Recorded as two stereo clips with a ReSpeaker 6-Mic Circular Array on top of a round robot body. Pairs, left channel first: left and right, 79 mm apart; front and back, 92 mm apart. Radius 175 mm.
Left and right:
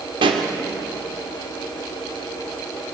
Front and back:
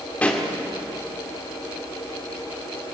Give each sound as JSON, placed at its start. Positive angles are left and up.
{"t": 0.2, "sound": "a pop", "azimuth_deg": -75, "distance_m": 1.8}